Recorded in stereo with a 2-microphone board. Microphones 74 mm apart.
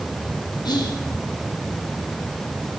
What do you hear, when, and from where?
0.7 s whispering: 70° left (ahead or behind), 0.5 m